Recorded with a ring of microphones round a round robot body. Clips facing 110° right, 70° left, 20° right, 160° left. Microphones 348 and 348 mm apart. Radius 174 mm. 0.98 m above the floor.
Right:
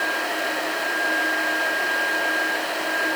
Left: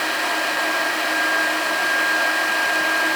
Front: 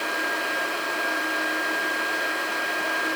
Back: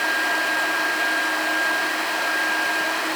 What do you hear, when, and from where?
Only background noise.